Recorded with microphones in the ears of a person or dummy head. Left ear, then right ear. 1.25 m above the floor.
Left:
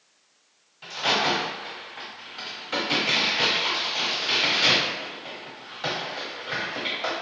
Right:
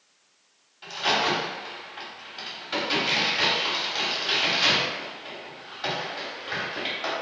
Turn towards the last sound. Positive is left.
turn(degrees=0)  # may be behind; listen again after turning